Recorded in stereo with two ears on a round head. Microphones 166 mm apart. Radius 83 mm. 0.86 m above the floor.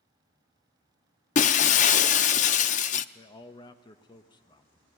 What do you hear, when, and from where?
1.4 s breaking glass: 40° left (ahead or behind), 0.5 m
3.1 s a man speaking: 25° left (ahead or behind), 0.9 m